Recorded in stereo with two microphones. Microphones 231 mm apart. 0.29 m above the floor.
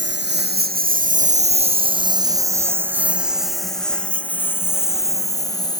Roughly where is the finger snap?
No finger snap in this recording.